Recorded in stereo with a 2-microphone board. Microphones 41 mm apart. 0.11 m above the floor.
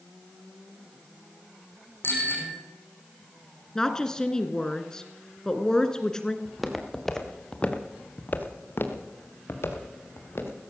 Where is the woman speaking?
15° left (ahead or behind), 1.1 m.